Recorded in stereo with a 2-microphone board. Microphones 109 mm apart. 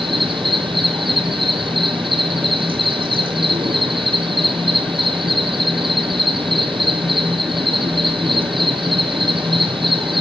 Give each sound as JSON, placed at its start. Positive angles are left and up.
{"t": 0.0, "sound": "an insect", "side_deg": -50, "distance_m": 1.2}